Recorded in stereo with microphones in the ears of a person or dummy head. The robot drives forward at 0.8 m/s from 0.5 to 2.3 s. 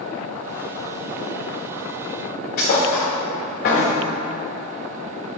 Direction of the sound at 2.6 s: 45° left (ahead or behind).